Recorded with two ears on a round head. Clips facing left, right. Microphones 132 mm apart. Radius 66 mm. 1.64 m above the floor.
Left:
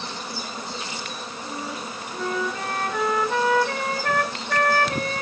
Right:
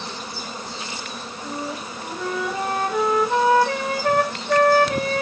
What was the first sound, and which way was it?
A flute, 10° right (ahead or behind).